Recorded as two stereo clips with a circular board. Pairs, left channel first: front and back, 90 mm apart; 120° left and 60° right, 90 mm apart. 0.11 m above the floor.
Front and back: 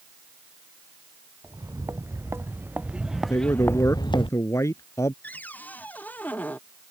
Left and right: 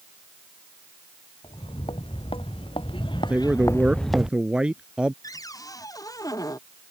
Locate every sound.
1.4 s footsteps: 125° left; by 4.3 s 20° left
3.3 s a man speaking: 10° left
5.2 s a cupboard door: 70° left